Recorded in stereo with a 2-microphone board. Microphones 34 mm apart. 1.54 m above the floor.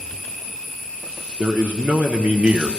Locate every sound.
1.4 s a man speaking: 70° right (ahead or behind), 0.9 m; by 2.7 s 40° right (ahead or behind), 0.9 m